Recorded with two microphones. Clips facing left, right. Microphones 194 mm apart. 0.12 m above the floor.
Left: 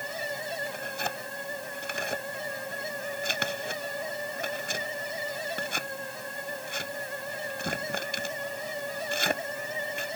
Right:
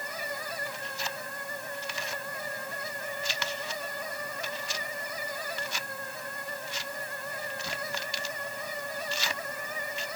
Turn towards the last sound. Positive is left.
turn(degrees=60)  # may be behind; listen again after turning